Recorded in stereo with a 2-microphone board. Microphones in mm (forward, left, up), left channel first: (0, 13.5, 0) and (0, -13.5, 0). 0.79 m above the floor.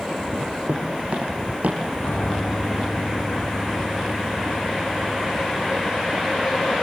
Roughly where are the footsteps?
Right.